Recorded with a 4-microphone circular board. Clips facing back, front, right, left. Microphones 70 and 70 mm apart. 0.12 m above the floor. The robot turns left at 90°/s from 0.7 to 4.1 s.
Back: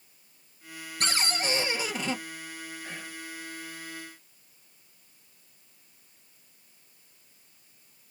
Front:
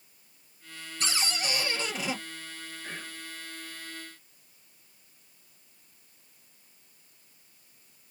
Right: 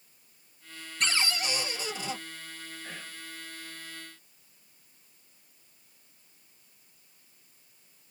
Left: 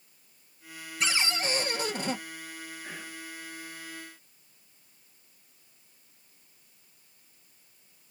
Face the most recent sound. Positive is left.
turn(degrees=-80)